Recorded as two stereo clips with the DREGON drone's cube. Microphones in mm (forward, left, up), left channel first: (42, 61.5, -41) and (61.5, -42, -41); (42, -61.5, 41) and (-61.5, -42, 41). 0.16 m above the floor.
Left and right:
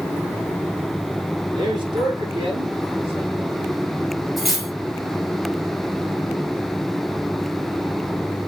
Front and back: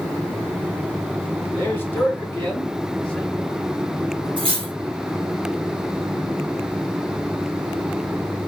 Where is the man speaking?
70° right, 1.4 m; by 3.7 s 95° right, 2.5 m.